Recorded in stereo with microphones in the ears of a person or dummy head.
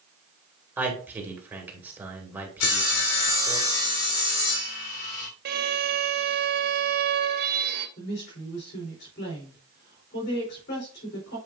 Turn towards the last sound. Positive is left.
turn(degrees=55)  # may be behind; listen again after turning